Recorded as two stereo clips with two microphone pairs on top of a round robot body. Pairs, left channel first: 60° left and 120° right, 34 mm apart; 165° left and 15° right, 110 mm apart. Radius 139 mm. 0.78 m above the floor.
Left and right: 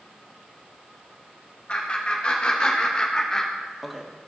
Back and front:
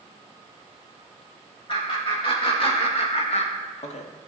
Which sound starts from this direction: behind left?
Laughter, at 1.7 s.